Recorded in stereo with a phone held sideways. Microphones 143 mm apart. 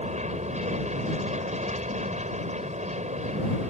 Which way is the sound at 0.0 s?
50° right (ahead or behind).